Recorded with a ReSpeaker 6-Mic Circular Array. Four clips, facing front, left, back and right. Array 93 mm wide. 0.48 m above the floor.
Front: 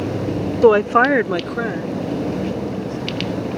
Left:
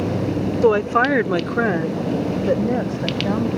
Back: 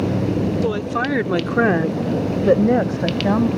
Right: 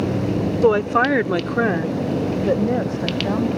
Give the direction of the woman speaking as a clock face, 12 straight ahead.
12 o'clock.